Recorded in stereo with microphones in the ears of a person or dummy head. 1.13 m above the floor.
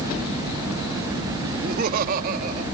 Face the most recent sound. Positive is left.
turn(degrees=-55)  # may be behind; listen again after turning